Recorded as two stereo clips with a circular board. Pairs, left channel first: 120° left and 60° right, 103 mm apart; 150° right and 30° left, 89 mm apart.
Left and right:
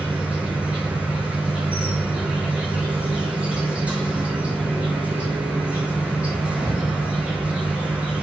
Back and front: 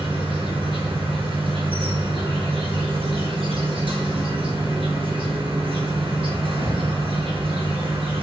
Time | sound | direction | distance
0.0 | an insect | 20° left | 4 m